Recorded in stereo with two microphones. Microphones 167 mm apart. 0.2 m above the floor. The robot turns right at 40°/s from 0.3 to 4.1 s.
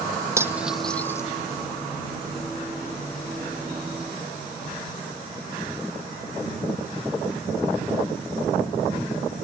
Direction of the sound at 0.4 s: 15° right (ahead or behind).